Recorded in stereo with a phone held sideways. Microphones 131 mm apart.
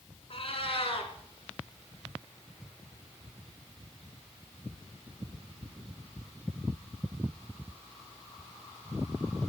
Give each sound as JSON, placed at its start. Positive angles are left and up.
{"t": 0.3, "sound": "a cat meowing", "side_deg": 50, "distance_m": 2.5}